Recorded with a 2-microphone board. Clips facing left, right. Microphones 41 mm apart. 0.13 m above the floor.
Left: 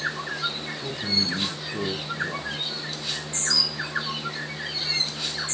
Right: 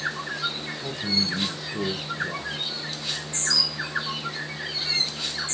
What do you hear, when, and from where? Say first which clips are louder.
0.8 s a man speaking: even; 20° left (ahead or behind), 1.6 m